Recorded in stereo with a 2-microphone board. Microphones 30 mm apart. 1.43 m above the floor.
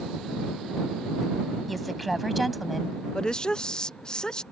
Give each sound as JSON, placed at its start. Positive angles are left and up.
{"t": 1.7, "sound": "a woman speaking", "side_deg": 0}
{"t": 3.1, "sound": "a woman speaking", "side_deg": 30}